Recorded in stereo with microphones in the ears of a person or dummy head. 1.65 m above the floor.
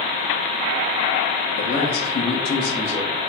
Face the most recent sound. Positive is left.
turn(degrees=-15)  # may be behind; listen again after turning